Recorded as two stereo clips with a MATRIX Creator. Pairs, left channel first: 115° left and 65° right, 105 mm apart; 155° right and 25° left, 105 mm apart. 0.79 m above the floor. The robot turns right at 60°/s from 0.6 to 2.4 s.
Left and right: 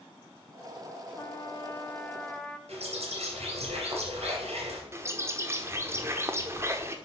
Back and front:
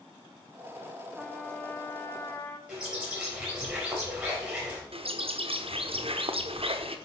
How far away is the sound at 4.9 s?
About 0.9 m.